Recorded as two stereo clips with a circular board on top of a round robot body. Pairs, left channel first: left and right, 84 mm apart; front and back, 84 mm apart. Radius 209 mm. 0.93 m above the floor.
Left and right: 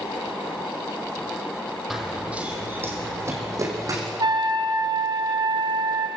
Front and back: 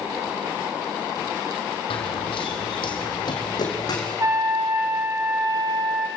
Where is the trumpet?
125° right, 2 m.